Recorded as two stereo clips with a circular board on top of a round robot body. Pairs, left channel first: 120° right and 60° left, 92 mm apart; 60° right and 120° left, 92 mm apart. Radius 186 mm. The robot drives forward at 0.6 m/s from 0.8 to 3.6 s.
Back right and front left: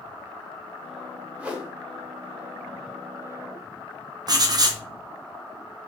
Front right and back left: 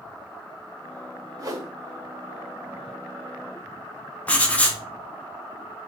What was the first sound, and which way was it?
A whoosh, 125° left.